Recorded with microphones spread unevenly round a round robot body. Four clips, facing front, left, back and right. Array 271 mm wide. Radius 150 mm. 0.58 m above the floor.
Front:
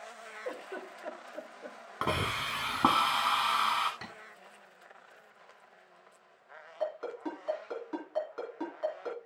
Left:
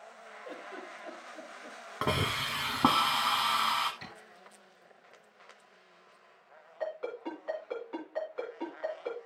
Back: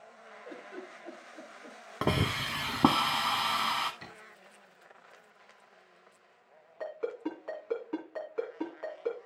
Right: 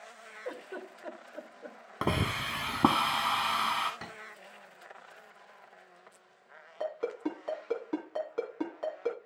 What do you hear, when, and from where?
0.5 s a giggle: 20° right, 1.9 m
2.0 s a hiss: 160° right, 0.6 m
4.0 s tapping: 40° right, 6.5 m
6.8 s a ringtone: 95° right, 3 m